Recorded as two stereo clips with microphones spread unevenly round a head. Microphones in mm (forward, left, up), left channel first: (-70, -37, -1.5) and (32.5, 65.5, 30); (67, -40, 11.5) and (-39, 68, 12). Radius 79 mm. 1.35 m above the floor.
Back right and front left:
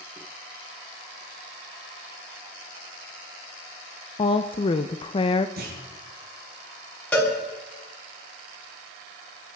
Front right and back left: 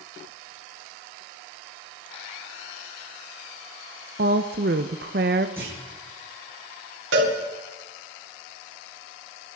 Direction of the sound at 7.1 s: 145° left.